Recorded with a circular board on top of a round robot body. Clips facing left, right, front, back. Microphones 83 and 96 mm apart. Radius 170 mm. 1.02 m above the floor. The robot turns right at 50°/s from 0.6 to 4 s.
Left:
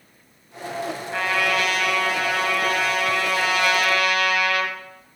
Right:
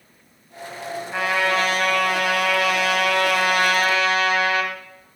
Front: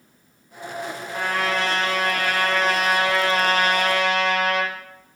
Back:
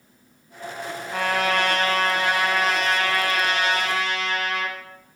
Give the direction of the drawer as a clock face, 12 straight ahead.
No drawer in this recording.